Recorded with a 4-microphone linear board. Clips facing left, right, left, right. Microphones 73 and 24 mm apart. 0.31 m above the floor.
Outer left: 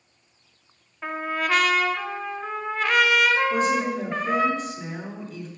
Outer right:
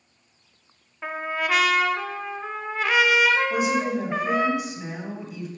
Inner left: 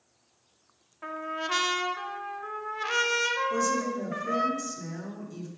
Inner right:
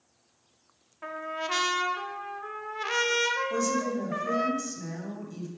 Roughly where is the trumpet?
Centre.